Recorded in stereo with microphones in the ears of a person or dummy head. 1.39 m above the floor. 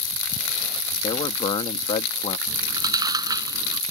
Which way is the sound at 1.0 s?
30° left (ahead or behind).